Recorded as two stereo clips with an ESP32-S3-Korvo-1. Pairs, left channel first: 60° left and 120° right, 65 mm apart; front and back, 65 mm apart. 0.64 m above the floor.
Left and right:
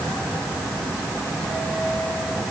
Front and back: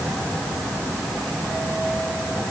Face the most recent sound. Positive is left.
No sound to turn to.